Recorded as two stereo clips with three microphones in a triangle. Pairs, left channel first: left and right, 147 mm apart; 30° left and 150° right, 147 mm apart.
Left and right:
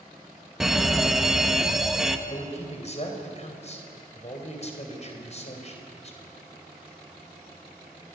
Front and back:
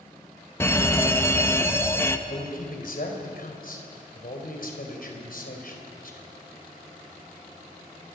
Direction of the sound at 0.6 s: 5° right.